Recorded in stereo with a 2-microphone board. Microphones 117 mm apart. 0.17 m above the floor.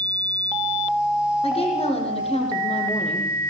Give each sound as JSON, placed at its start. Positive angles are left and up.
{"t": 1.4, "sound": "a woman speaking", "side_deg": 55, "distance_m": 8.5}